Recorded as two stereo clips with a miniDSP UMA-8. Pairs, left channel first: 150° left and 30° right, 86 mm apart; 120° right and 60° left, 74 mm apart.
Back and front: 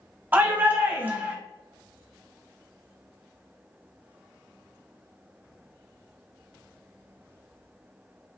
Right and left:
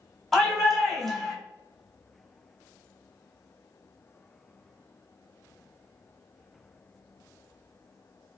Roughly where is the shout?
Ahead right.